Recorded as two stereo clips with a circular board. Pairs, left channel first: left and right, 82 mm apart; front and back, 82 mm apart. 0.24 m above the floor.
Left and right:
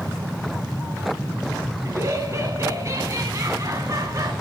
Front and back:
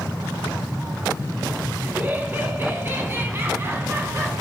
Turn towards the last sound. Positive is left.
turn(degrees=-125)